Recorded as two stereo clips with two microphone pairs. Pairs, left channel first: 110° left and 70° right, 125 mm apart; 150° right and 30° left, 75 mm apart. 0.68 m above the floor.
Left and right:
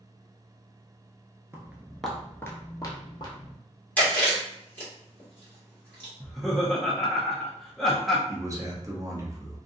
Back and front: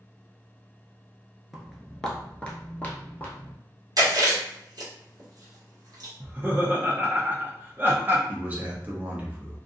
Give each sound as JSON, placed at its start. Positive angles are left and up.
{"t": 1.5, "sound": "footsteps", "azimuth_deg": -55, "distance_m": 0.6}
{"t": 4.0, "sound": "chewing", "azimuth_deg": 40, "distance_m": 1.3}
{"t": 6.2, "sound": "laughter", "azimuth_deg": 25, "distance_m": 0.6}
{"t": 8.3, "sound": "a man speaking", "azimuth_deg": -25, "distance_m": 0.7}